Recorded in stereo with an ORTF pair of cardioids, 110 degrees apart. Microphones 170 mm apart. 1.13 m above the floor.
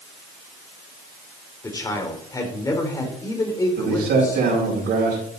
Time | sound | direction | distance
1.6 | a man speaking | 20° left | 3.5 m
3.8 | a man speaking | 70° right | 5 m